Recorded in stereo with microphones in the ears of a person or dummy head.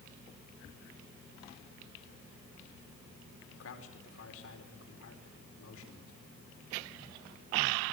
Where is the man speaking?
80° left, 4.5 m.